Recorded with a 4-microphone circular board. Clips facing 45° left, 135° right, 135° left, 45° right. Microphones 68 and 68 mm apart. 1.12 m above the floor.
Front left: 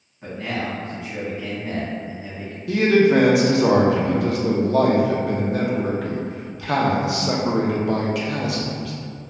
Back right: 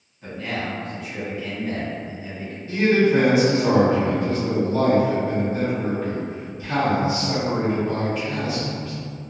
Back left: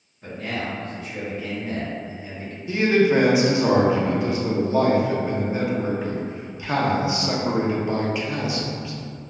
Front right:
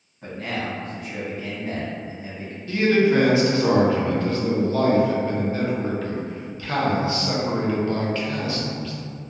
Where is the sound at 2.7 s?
60° left, 0.6 m.